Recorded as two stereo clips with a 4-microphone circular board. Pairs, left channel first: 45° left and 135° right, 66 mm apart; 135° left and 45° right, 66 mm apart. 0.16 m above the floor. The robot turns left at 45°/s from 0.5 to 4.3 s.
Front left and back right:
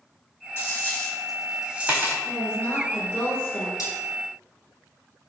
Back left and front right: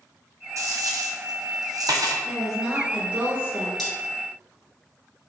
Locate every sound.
0.6 s a dropped coin: 5° right, 1.0 m; by 2.1 s 75° right, 1.0 m
2.2 s a woman speaking: 45° left, 1.4 m; by 3.7 s 15° right, 1.4 m
3.8 s cutlery clinking: 50° left, 1.6 m; by 3.9 s 45° left, 1.6 m